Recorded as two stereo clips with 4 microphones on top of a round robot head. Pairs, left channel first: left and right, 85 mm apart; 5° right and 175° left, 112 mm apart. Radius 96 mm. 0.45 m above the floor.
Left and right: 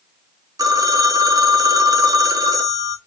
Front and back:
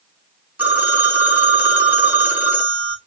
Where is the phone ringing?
115° right, 0.7 m.